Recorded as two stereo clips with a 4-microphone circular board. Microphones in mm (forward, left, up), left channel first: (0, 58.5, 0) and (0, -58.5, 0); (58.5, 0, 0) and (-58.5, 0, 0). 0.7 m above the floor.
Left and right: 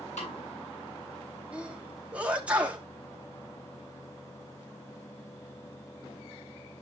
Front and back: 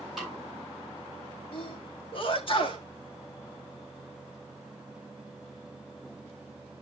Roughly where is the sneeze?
Ahead.